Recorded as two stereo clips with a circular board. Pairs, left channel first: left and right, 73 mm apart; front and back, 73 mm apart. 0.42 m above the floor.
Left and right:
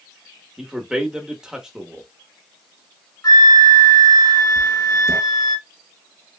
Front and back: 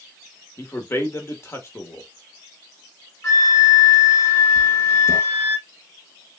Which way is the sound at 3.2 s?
60° left.